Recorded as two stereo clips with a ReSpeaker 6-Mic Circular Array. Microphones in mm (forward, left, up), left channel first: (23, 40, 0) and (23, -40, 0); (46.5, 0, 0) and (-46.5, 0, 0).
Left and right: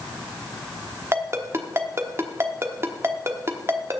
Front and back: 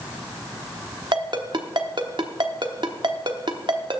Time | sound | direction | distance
1.1 | a ringtone | 145° right | 1.0 m